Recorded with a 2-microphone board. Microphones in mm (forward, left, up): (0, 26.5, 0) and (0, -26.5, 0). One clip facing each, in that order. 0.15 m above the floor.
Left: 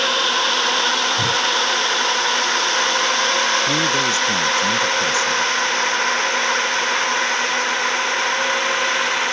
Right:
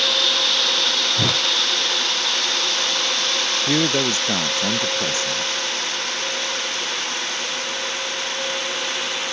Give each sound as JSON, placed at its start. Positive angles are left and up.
{"t": 0.0, "sound": "a drone", "side_deg": 35}
{"t": 1.2, "sound": "a whoosh", "side_deg": -85}
{"t": 3.7, "sound": "a man speaking", "side_deg": -30}